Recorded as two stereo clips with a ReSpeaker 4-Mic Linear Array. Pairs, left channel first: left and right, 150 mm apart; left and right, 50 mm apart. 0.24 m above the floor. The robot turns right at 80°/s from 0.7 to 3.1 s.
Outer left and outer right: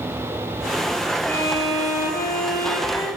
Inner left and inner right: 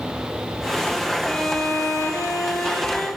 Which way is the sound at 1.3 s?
10° left.